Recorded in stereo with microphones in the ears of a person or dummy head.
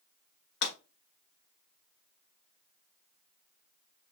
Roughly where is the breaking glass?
Left.